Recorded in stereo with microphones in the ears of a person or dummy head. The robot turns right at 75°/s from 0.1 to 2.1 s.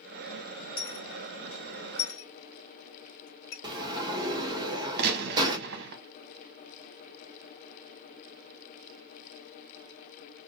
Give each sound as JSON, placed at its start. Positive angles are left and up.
{"t": 0.8, "sound": "a dropped coin", "side_deg": 15, "distance_m": 2.0}
{"t": 3.6, "sound": "a sliding door", "side_deg": -20, "distance_m": 1.1}
{"t": 5.0, "sound": "a gunshot", "side_deg": -55, "distance_m": 0.8}